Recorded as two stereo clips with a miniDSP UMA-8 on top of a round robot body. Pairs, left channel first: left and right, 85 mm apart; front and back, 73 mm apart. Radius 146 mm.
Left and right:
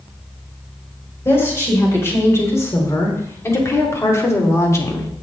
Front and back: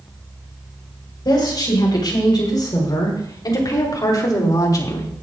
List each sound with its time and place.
1.2 s a woman speaking: 30° left, 5.5 m; by 5.1 s 35° left, 2 m